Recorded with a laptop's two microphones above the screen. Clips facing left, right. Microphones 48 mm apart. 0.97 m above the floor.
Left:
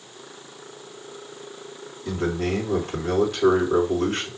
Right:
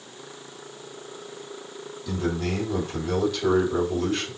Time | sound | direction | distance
2.0 | a man speaking | 60° left (ahead or behind) | 3 m